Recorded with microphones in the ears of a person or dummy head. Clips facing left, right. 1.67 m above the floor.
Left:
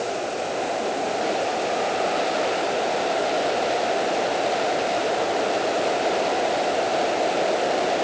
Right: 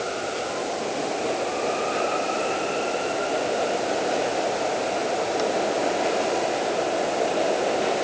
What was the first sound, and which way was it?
Only background noise.